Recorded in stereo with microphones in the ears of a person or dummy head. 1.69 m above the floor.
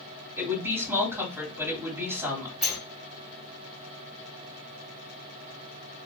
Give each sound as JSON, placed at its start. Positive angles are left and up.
{"t": 0.4, "sound": "a woman speaking", "side_deg": -15, "distance_m": 1.9}
{"t": 2.6, "sound": "a sliding door", "side_deg": 0, "distance_m": 1.8}